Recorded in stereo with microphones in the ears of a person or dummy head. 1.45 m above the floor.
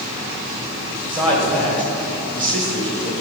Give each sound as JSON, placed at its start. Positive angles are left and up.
{"t": 1.1, "sound": "a man speaking", "side_deg": -30, "distance_m": 1.8}